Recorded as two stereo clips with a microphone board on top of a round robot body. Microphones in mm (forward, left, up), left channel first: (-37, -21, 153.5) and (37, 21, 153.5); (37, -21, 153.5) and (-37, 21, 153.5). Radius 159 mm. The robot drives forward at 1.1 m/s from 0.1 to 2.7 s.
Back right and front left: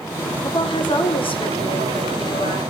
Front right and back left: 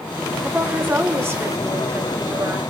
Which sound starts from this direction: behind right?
A woman speaking, at 0.4 s.